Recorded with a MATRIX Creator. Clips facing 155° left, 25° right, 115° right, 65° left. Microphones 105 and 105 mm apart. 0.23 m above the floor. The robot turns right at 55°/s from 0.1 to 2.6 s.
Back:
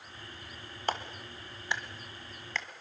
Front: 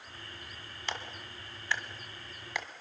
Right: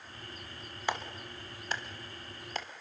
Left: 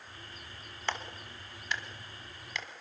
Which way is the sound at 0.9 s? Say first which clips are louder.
Back 6 dB, right 2 dB; 175° left.